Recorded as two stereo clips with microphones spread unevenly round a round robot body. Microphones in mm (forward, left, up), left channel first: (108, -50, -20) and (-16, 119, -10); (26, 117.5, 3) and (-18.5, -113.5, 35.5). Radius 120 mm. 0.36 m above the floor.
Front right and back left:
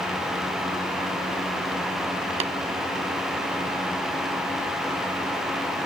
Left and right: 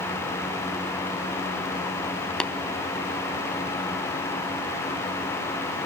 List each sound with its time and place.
2.4 s tapping: 140° left, 1.0 m